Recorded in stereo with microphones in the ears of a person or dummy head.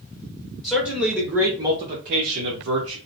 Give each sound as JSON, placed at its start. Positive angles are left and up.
{"t": 0.6, "sound": "a man speaking", "side_deg": 5, "distance_m": 1.1}